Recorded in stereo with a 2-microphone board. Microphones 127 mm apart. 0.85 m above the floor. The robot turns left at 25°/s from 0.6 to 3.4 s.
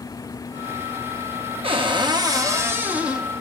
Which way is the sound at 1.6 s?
135° right.